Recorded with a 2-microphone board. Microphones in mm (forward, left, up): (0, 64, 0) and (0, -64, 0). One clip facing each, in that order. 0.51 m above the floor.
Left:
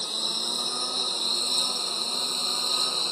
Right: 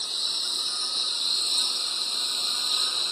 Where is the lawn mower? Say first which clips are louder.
Left 7 dB; 55° left (ahead or behind); by 3.1 s 40° left (ahead or behind).